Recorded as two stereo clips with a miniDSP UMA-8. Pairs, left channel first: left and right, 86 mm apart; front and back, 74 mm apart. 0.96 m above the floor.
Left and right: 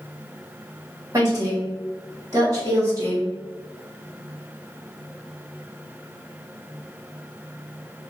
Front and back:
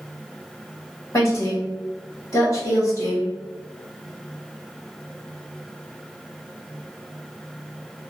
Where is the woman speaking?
45° right, 2.0 m.